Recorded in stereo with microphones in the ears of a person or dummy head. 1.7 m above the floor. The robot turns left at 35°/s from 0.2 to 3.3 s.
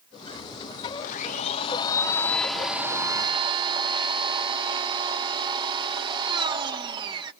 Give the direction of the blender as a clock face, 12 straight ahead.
10 o'clock.